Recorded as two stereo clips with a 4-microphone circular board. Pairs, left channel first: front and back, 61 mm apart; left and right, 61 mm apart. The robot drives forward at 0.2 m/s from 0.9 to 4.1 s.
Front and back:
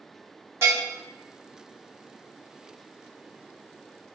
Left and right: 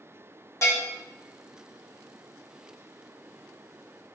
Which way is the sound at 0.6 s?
130° left.